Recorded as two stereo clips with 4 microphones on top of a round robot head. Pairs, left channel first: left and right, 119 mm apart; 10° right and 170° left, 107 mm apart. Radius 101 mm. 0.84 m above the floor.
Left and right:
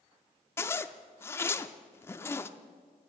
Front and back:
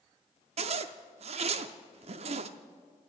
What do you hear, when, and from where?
0.6 s a zipper: 160° left, 0.5 m